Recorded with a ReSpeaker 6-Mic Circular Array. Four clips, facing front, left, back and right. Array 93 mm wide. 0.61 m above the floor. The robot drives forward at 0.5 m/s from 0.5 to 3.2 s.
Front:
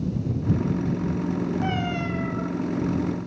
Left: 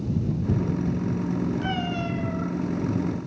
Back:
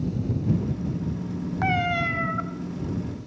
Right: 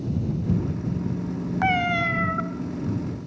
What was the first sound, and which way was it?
A cat meowing, 115° right.